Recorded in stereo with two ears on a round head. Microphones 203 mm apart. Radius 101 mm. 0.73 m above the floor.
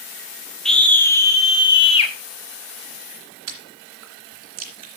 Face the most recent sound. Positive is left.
turn(degrees=-80)